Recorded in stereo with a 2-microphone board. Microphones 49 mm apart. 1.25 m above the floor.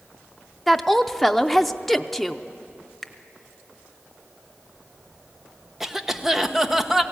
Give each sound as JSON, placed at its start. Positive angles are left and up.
{"t": 0.7, "sound": "a woman speaking", "side_deg": 5, "distance_m": 0.6}
{"t": 3.0, "sound": "a finger snap", "side_deg": 0, "distance_m": 0.8}
{"t": 5.8, "sound": "a cough", "side_deg": -10, "distance_m": 1.0}